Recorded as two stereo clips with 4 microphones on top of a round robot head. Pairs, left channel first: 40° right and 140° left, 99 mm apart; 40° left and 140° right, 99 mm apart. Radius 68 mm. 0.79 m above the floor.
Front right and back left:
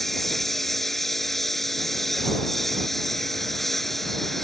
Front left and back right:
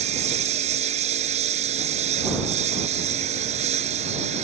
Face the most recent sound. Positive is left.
turn(degrees=-125)